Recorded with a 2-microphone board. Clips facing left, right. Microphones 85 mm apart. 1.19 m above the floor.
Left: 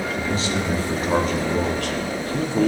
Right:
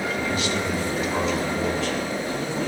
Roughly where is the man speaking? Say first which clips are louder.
Left 1 dB; left.